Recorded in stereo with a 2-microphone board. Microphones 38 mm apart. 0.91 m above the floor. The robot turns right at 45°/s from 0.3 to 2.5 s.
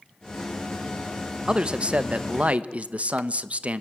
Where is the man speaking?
140° right, 0.8 m; by 3.8 s 95° right, 0.8 m.